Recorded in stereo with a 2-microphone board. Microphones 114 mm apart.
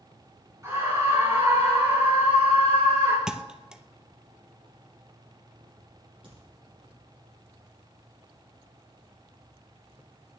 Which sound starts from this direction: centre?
A thud, at 3.3 s.